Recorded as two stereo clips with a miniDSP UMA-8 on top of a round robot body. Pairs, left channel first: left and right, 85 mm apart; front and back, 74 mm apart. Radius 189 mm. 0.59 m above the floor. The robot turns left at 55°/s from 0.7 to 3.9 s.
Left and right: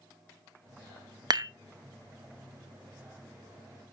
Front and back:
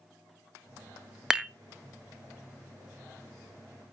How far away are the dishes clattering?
About 0.7 m.